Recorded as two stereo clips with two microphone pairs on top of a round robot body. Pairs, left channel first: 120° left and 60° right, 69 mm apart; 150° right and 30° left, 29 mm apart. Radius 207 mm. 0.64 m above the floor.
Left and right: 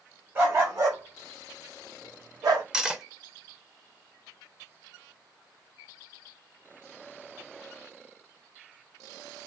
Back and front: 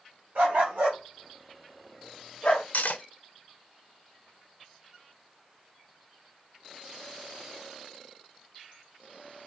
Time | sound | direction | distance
0.3 | a dog barking | straight ahead | 1.7 m
2.7 | cutlery clinking | 145° right | 0.8 m